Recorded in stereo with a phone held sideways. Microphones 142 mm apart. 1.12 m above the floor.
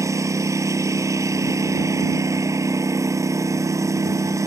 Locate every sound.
0.0 s a lawn mower: 20° right (ahead or behind)